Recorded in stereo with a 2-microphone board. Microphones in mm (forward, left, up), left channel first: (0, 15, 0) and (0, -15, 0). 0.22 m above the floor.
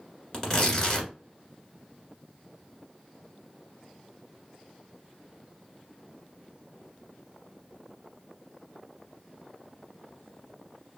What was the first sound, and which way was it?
Tearing paper, 20° left (ahead or behind).